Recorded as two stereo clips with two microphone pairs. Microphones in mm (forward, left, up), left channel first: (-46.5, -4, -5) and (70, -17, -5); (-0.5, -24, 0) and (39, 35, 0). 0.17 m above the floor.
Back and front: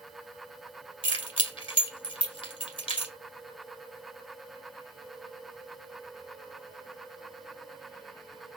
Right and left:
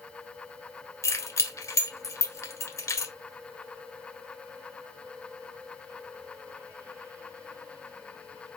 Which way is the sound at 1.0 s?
160° right.